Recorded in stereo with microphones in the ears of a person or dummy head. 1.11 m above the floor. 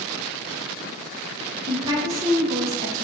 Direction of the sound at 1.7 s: 20° right (ahead or behind).